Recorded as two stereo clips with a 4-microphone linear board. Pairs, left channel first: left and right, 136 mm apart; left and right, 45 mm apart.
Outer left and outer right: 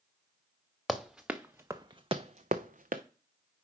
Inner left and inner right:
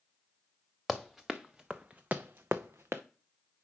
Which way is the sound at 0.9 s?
Centre (ahead or behind).